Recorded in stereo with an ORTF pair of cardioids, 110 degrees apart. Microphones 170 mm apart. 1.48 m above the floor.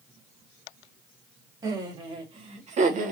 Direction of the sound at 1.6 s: 25° right.